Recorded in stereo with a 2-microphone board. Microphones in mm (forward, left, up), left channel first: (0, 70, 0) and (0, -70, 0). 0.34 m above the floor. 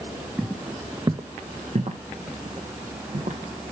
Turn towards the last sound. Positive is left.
turn(degrees=-75)  # may be behind; listen again after turning